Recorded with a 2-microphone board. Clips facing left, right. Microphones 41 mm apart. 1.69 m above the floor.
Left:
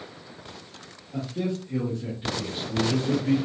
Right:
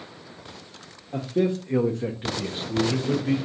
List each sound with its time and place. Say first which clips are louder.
1.1 s a man speaking: right 6 dB; 60° right (ahead or behind), 0.8 m; by 3.4 s 5° right (ahead or behind), 1.1 m